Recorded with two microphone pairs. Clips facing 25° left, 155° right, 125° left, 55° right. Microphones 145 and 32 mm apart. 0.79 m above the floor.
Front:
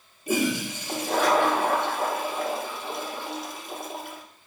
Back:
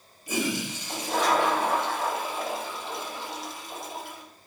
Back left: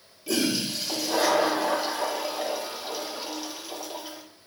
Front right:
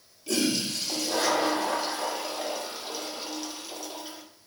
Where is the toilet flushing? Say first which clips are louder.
Front 4 dB, back left 1 dB; 45° left, 0.9 m.